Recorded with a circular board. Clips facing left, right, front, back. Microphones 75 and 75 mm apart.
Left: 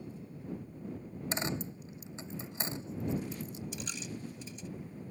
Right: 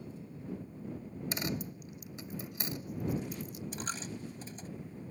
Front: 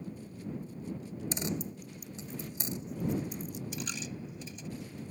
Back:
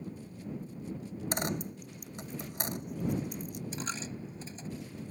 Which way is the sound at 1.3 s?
150° left.